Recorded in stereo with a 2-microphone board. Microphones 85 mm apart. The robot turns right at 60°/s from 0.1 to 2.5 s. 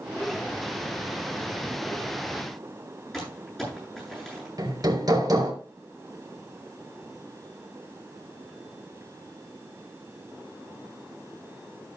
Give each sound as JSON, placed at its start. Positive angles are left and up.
{"t": 3.1, "sound": "crumpling", "side_deg": 5, "distance_m": 9.5}
{"t": 4.6, "sound": "hammering", "side_deg": -50, "distance_m": 4.0}